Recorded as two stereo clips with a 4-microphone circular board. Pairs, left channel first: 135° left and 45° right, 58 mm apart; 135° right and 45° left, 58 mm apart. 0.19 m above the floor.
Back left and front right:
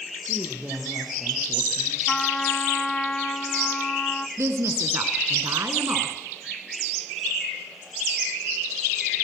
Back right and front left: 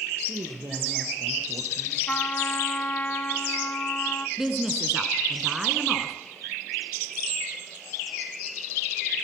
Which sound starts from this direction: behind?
A trumpet, at 2.1 s.